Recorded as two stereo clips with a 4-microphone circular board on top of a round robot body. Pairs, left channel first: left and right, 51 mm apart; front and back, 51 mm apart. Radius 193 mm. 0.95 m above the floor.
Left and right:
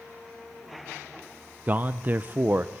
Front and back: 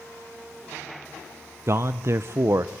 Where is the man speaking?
145° right, 0.7 m.